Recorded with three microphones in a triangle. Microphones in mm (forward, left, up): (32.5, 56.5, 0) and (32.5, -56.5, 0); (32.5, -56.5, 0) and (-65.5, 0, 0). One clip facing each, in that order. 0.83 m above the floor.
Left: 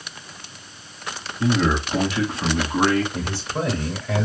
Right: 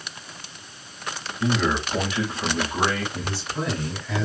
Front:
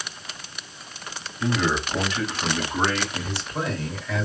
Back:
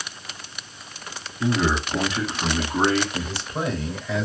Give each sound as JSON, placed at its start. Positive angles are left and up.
{"t": 1.4, "sound": "a man speaking", "azimuth_deg": 90, "distance_m": 1.4}
{"t": 3.1, "sound": "a man speaking", "azimuth_deg": 70, "distance_m": 1.9}